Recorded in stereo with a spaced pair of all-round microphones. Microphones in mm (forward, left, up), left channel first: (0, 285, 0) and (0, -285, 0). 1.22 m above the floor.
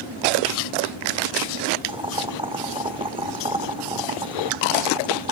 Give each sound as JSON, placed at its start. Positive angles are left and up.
{"t": 1.9, "sound": "boiling", "side_deg": -10, "distance_m": 0.9}